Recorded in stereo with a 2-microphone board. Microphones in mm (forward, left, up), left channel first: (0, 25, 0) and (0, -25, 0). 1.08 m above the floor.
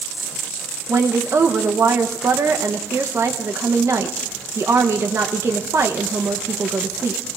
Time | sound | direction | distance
0.9 | a woman speaking | 65° right (ahead or behind) | 0.8 m